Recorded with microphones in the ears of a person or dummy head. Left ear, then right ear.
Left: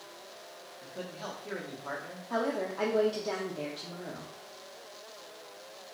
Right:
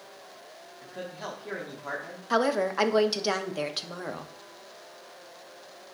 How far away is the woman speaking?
About 0.6 m.